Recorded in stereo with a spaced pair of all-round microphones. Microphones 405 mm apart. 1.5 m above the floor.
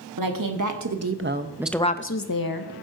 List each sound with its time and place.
0.2 s a woman speaking: 55° right (ahead or behind), 1.4 m; by 2.7 s 70° left (ahead or behind), 0.8 m